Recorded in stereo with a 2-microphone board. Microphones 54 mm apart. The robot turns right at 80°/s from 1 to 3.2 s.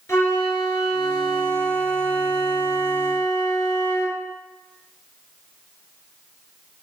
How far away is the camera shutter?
No camera shutter in this recording.